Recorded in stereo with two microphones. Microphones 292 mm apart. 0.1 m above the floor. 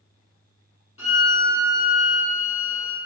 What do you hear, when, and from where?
1.0 s a violin: 45° left (ahead or behind), 3 m